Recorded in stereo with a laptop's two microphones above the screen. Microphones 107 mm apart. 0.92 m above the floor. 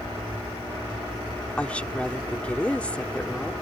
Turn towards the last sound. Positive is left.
turn(degrees=10)  # may be behind; listen again after turning